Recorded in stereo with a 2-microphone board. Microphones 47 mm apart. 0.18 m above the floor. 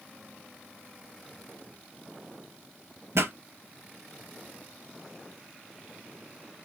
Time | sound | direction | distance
3.1 | a pop | 65° right (ahead or behind) | 0.5 m